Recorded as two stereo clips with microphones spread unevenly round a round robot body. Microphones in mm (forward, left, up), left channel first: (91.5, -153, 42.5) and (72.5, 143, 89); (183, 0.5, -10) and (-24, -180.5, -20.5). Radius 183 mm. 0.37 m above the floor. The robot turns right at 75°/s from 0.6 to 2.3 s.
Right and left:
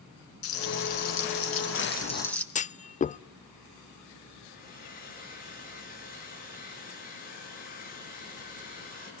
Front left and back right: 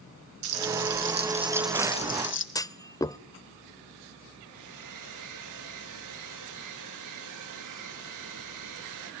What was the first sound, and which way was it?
Frying, 130° right.